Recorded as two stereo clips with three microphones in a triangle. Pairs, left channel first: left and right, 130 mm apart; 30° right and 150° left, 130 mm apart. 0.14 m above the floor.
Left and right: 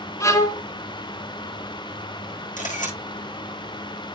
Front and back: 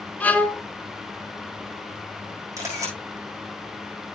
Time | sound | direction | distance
0.2 | a violin | 40° left | 1.2 m
2.6 | a camera shutter | 85° left | 8 m